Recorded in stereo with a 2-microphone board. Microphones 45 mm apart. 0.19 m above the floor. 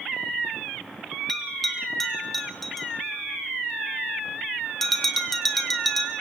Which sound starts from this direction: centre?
A bell, at 1.3 s.